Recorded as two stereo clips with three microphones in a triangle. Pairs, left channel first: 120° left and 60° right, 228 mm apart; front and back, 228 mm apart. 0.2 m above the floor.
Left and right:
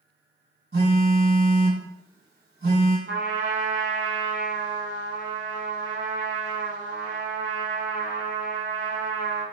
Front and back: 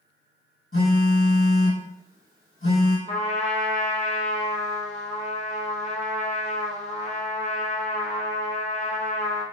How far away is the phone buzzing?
About 1.9 m.